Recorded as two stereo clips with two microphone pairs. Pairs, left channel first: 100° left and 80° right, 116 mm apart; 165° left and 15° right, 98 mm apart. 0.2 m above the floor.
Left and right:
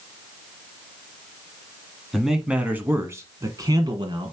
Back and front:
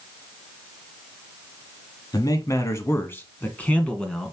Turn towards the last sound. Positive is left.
turn(degrees=-110)